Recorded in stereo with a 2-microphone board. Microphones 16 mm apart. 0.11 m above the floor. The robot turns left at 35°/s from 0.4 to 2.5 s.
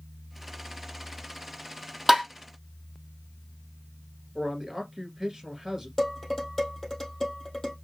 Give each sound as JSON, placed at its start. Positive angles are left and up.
{"t": 2.1, "sound": "tapping", "side_deg": -15, "distance_m": 1.9}
{"t": 4.3, "sound": "a man speaking", "side_deg": -20, "distance_m": 1.7}
{"t": 6.0, "sound": "dishes clattering", "side_deg": 15, "distance_m": 2.0}